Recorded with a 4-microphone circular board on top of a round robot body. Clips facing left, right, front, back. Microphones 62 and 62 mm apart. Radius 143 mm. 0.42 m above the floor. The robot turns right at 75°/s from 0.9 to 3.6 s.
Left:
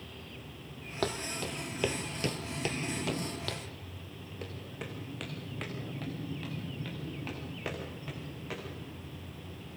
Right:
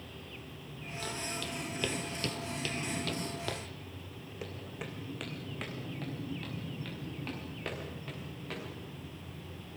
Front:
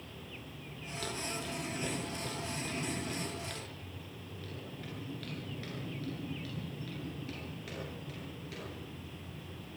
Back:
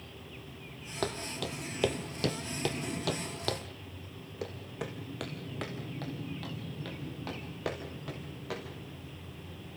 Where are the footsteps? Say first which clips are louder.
Left 5 dB, back 4 dB; 130° left, 1.5 m; by 8.6 s 175° left, 7 m.